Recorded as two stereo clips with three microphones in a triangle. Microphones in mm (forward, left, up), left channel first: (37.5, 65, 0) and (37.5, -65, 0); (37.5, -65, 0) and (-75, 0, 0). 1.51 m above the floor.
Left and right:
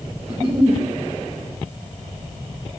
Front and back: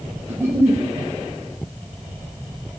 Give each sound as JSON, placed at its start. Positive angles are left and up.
{"t": 0.3, "sound": "a giggle", "azimuth_deg": -140, "distance_m": 2.0}